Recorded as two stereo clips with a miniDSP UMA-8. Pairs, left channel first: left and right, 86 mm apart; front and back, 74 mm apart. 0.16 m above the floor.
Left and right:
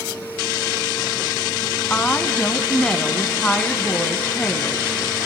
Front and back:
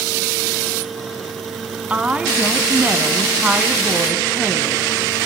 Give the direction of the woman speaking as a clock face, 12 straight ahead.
7 o'clock.